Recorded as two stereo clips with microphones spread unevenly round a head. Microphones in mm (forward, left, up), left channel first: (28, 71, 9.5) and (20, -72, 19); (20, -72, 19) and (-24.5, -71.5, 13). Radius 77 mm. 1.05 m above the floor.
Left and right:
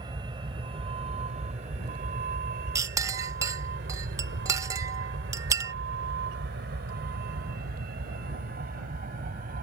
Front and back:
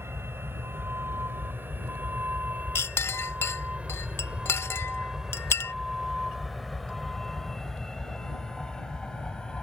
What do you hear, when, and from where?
0.0 s a vehicle: 155° right; by 9.7 s 70° right
2.8 s a clink: 25° right